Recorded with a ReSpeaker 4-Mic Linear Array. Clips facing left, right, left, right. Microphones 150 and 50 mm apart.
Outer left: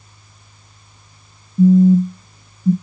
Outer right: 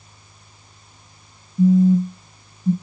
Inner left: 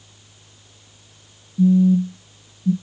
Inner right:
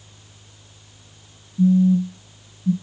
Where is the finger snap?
No finger snap in this recording.